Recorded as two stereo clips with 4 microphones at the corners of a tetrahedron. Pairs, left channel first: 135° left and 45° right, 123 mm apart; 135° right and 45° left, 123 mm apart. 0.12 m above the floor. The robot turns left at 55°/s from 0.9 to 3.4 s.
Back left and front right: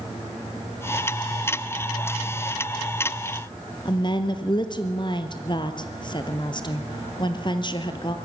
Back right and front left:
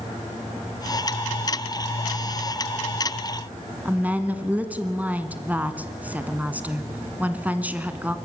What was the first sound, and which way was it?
A woman speaking, 115° left.